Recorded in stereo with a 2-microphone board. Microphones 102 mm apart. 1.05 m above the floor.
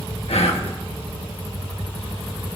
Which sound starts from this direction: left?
Whispering, at 0.3 s.